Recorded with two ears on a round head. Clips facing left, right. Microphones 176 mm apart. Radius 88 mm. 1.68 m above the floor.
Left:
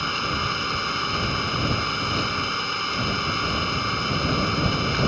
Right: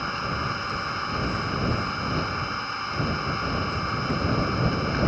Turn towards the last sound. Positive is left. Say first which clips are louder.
# left 2 dB
turn(degrees=40)  # may be behind; listen again after turning